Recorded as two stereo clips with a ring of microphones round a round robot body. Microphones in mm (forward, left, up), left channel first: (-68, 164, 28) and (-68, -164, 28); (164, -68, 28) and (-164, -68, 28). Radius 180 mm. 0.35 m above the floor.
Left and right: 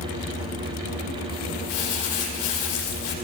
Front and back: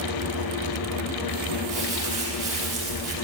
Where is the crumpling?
110° left, 5 m.